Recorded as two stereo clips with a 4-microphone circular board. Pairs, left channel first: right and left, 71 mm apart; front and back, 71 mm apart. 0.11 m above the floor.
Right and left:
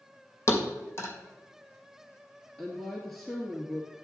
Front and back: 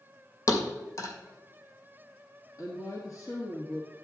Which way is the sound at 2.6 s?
Straight ahead.